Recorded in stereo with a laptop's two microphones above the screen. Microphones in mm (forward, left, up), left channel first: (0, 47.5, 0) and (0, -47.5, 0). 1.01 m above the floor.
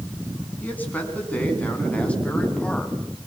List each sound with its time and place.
0.6 s a man speaking: 15° left (ahead or behind), 9 m; by 3.0 s 10° left (ahead or behind), 6 m